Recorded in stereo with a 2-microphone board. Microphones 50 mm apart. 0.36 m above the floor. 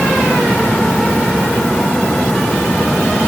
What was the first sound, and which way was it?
Only background noise.